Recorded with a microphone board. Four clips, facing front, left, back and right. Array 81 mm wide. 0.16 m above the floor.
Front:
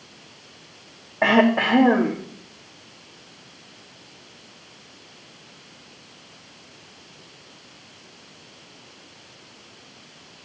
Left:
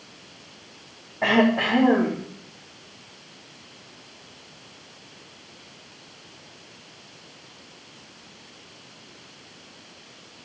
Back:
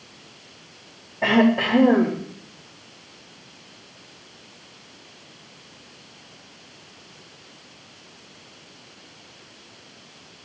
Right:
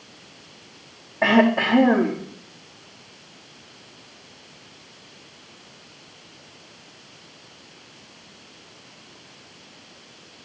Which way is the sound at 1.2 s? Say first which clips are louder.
Right 2 dB, front 1 dB; 20° right.